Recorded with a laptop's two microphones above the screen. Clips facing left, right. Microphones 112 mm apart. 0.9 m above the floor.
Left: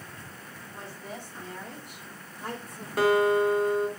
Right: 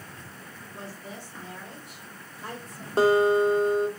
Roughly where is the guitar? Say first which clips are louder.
Right 2 dB; right.